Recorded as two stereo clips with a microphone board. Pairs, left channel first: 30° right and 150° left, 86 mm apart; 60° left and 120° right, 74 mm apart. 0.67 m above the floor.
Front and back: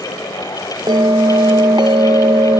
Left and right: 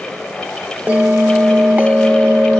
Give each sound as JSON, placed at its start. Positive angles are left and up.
{"t": 0.9, "sound": "a bell", "azimuth_deg": 170, "distance_m": 0.7}